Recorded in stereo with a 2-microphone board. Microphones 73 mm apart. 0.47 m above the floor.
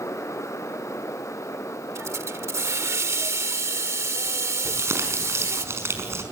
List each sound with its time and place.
1.9 s a hiss: 45° right (ahead or behind), 1.2 m
4.7 s crumpling: 40° right (ahead or behind), 5 m